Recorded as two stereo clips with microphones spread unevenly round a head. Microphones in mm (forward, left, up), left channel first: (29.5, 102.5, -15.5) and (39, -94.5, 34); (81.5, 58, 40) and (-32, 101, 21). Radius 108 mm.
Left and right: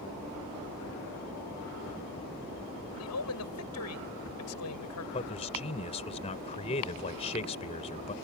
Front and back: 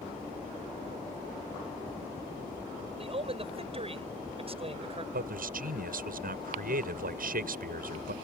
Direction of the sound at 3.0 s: 115° left.